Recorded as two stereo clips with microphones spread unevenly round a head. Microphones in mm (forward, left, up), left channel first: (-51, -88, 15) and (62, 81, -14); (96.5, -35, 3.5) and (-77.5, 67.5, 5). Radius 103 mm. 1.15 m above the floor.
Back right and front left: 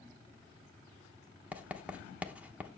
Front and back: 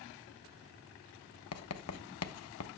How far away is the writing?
About 0.8 m.